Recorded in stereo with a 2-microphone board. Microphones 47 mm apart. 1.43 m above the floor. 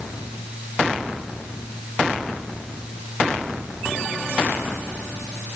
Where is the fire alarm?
No fire alarm in this recording.